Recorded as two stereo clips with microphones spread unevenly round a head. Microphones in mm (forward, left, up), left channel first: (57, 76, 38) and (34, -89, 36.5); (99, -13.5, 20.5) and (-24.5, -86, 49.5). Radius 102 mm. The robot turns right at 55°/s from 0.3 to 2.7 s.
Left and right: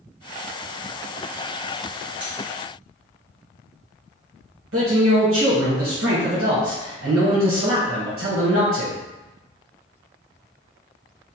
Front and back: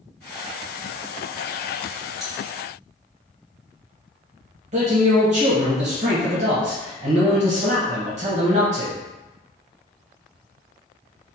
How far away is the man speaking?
About 1.0 m.